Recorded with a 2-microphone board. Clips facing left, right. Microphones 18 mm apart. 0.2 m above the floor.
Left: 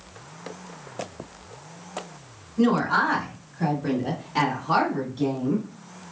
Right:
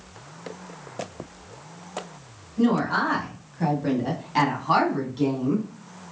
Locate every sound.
2.6 s a woman speaking: 15° left (ahead or behind), 1.4 m; by 5.7 s 45° right (ahead or behind), 2.0 m